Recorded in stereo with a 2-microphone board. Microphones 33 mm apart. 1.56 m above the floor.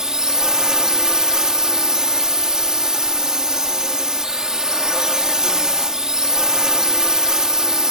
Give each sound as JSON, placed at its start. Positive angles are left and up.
{"t": 0.0, "sound": "a drone", "side_deg": -20}